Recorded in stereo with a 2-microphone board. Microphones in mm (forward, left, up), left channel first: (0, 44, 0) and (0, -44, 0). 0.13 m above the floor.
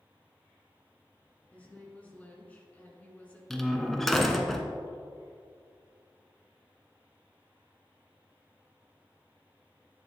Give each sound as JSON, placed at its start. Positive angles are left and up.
{"t": 1.5, "sound": "a woman speaking", "side_deg": 15, "distance_m": 1.7}
{"t": 3.5, "sound": "a door slam", "side_deg": 0, "distance_m": 0.8}